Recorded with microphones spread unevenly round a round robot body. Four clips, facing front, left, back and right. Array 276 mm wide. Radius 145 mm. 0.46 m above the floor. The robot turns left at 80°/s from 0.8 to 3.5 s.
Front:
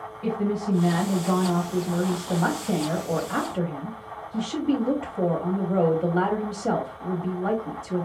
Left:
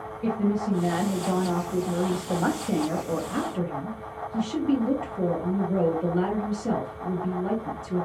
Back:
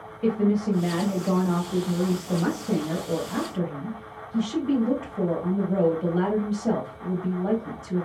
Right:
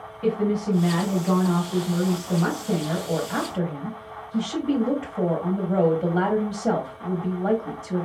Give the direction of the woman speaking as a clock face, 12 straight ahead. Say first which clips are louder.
Right 3 dB, back 3 dB; 6 o'clock.